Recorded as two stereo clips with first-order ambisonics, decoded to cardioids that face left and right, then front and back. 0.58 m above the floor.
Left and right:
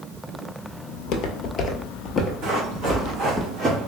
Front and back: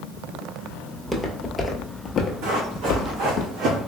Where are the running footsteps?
140° right, 2 m; by 3.8 s 150° right, 1.6 m.